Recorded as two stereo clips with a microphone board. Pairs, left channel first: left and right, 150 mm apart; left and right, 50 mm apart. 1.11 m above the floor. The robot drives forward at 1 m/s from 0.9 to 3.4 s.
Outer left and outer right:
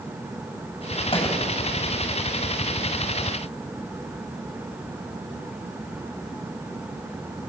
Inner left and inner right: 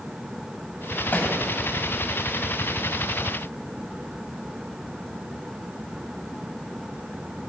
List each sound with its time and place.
1.1 s a thud: 40° left (ahead or behind), 4 m; by 1.4 s 35° left (ahead or behind), 4 m